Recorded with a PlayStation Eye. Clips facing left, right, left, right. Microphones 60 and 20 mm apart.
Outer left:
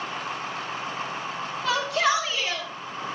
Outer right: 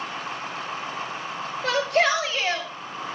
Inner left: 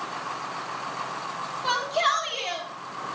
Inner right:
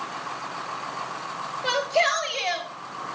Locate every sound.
1.6 s a shout: 55° right (ahead or behind), 2.5 m; by 2.7 s 45° right (ahead or behind), 1.8 m